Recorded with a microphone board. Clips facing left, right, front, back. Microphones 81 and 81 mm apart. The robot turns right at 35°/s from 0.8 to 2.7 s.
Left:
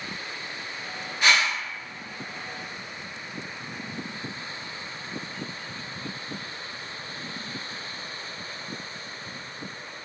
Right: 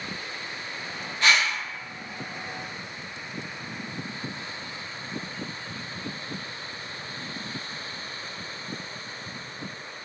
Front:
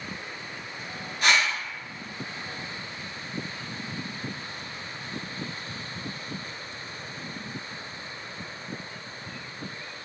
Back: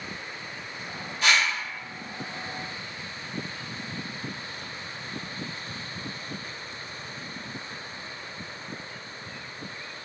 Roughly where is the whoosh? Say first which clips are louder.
Even, even; ahead.